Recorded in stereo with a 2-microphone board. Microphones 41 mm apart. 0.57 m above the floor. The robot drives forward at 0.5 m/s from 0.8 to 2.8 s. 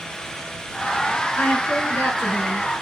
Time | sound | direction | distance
1.4 | a woman speaking | 60° left (ahead or behind) | 6.5 m